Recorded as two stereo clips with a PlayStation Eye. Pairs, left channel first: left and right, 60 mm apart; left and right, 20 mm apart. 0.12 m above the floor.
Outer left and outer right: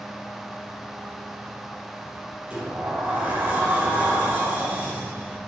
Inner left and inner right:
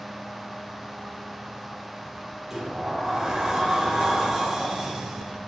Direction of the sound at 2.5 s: 20° right (ahead or behind).